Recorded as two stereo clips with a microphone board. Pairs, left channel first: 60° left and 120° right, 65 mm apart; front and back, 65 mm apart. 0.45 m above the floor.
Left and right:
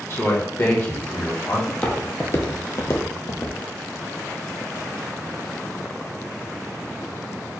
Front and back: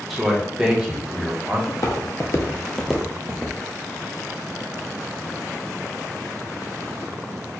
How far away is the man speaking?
About 1.0 m.